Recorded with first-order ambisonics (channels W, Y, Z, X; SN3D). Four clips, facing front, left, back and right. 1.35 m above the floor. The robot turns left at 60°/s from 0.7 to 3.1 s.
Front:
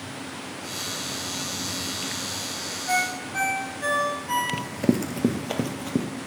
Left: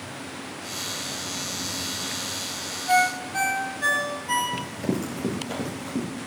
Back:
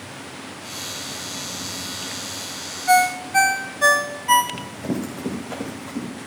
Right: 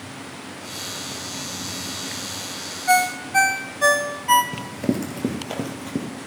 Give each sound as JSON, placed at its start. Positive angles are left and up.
{"t": 2.9, "sound": "a ringtone", "azimuth_deg": -125, "distance_m": 1.0}
{"t": 4.5, "sound": "running footsteps", "azimuth_deg": -30, "distance_m": 1.6}